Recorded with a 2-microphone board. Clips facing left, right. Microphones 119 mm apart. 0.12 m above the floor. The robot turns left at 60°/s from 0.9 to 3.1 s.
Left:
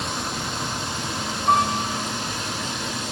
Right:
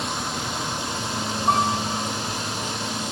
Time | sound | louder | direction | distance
1.5 | a piano | left 2 dB | 15° right | 6 m